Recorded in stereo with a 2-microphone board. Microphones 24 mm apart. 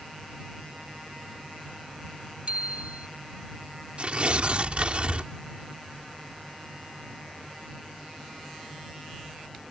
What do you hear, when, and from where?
2.5 s a bicycle bell: 50° right (ahead or behind)
4.0 s tearing paper: 45° right (ahead or behind)